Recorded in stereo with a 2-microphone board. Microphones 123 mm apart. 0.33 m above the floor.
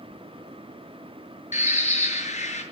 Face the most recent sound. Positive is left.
turn(degrees=75)  # may be behind; listen again after turning